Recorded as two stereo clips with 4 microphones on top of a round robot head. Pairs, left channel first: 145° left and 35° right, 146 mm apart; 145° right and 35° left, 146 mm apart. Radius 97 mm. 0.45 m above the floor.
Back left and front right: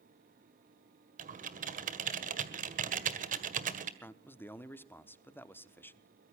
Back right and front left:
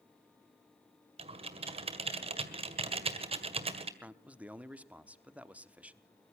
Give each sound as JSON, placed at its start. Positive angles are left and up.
{"t": 1.2, "sound": "typing on a keyboard", "azimuth_deg": -10, "distance_m": 1.8}
{"t": 4.0, "sound": "a man speaking", "azimuth_deg": 95, "distance_m": 1.1}